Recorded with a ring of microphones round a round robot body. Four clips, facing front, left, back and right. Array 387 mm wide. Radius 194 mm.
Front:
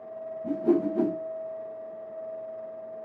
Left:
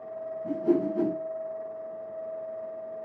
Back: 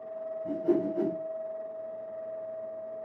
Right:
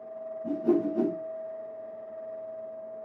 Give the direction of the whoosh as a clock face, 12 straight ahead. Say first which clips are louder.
Even, front 3 dB; 12 o'clock.